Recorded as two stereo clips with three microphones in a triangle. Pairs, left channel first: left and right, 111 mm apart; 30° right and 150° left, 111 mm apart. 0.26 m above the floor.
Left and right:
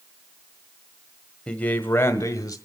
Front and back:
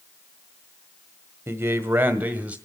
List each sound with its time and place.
1.5 s a man speaking: 155° left, 0.9 m; by 2.6 s 85° left, 1.0 m